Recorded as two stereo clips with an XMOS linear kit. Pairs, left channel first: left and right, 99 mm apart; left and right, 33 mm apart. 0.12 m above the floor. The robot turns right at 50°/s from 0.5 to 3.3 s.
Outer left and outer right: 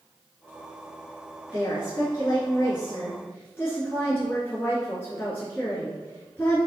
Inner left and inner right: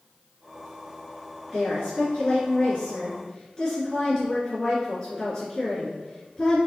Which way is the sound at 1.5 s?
55° left.